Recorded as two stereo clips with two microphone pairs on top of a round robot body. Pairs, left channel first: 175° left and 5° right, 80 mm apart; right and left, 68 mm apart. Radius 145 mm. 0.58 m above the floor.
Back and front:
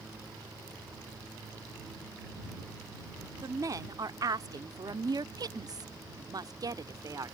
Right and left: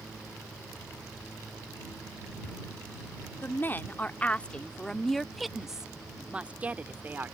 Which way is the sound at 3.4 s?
40° right.